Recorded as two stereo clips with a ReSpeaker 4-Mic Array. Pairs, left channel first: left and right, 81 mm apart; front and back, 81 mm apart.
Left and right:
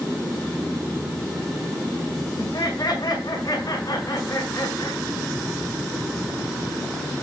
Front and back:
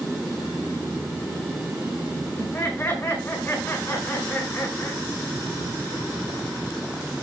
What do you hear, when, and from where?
2.4 s laughter: 55° left, 6.5 m